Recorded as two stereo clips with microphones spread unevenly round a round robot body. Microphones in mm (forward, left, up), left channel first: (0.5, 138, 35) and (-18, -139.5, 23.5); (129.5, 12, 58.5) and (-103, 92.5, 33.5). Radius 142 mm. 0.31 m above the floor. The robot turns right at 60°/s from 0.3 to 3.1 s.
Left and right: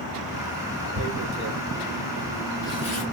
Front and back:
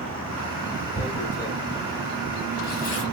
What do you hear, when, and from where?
0.9 s tearing paper: 90° right, 1.4 m; by 3.0 s 35° left, 1.4 m